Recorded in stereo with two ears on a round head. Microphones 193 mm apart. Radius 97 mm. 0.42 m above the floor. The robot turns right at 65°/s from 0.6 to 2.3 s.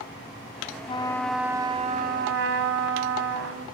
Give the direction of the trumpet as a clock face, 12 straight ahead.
7 o'clock.